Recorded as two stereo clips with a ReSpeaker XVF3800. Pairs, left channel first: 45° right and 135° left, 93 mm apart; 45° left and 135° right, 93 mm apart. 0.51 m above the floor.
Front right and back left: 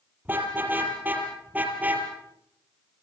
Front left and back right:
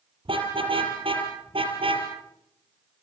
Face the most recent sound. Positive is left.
turn(degrees=-155)